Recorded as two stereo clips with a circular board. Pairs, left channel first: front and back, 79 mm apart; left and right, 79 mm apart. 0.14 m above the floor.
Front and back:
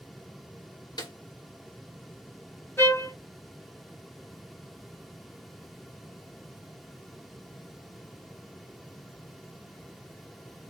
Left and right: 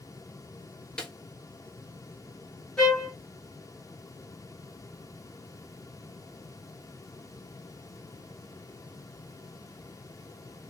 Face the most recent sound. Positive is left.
turn(degrees=10)